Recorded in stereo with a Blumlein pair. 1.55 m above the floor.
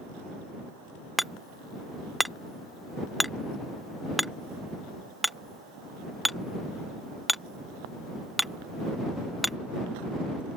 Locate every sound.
1.2 s hammering: straight ahead